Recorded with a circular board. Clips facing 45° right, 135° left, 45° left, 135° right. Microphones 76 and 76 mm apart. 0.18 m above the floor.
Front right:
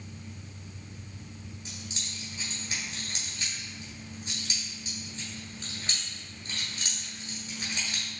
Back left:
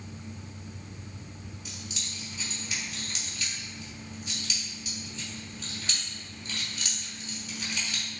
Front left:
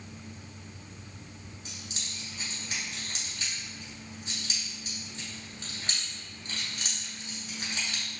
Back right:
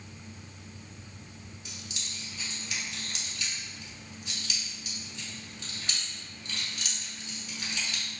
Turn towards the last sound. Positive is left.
turn(degrees=0)